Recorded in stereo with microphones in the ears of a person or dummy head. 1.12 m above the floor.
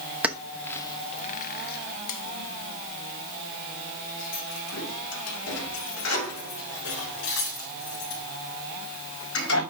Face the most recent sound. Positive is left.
turn(degrees=70)  # may be behind; listen again after turning